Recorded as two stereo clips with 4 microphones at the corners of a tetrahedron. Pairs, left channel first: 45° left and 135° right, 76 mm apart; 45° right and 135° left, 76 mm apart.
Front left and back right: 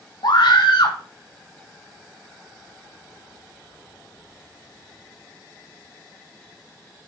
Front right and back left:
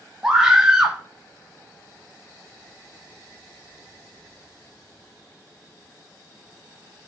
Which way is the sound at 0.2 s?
55° left.